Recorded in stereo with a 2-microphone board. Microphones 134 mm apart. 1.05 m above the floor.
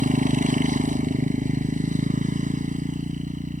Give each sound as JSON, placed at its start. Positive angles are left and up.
{"t": 0.0, "sound": "a motorcycle", "side_deg": -75}